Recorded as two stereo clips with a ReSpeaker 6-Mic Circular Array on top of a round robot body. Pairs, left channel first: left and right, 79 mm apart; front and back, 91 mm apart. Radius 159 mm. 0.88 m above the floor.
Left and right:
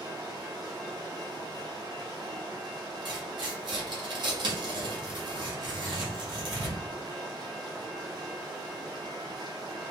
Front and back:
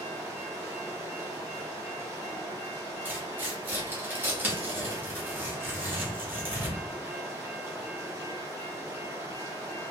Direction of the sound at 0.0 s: 125° right.